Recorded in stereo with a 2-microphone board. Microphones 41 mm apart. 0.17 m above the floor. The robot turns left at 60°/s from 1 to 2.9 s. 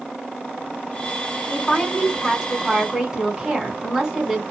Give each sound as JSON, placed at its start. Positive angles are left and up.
{"t": 1.5, "sound": "a woman speaking", "azimuth_deg": 50, "distance_m": 1.5}